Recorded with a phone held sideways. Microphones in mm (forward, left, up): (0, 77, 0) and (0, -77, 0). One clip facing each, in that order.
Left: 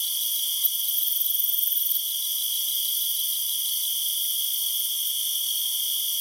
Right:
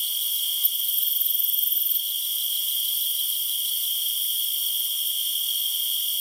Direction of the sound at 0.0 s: 40° left (ahead or behind).